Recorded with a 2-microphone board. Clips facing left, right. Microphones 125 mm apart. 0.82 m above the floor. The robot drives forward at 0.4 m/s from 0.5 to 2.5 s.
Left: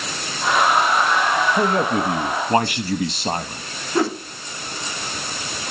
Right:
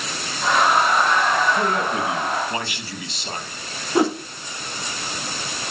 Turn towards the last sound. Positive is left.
turn(degrees=-15)  # may be behind; listen again after turning